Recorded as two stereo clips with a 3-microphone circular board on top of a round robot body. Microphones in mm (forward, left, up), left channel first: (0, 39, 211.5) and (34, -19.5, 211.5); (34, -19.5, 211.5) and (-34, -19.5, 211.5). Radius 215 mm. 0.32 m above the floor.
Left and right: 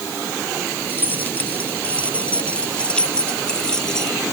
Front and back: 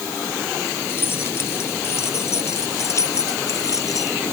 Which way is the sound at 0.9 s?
55° left.